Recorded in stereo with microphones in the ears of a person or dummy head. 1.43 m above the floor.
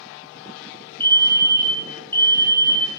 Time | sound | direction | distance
1.0 | a fire alarm | 10° left (ahead or behind) | 1.3 m